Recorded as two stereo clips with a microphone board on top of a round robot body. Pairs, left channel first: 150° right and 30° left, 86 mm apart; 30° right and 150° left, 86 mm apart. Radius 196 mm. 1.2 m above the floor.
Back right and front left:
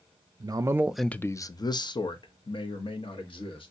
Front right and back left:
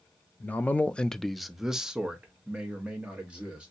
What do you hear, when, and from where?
0.4 s a man speaking: 35° left, 0.6 m; by 3.7 s 130° right, 1.6 m